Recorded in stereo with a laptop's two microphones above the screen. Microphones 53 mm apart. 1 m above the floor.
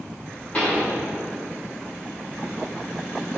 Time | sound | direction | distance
0.5 | a pop | 30° left (ahead or behind) | 2.5 m